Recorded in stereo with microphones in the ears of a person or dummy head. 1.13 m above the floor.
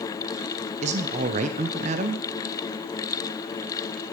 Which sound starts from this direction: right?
A man speaking, at 0.8 s.